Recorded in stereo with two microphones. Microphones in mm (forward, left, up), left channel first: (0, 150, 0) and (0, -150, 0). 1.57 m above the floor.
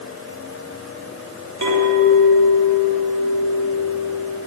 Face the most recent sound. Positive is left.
turn(degrees=-70)  # may be behind; listen again after turning